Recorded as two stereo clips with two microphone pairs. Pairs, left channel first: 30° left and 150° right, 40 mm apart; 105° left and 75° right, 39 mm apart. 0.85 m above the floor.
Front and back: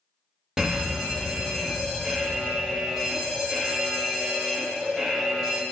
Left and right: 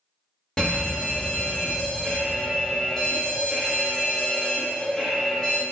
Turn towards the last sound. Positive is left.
turn(degrees=155)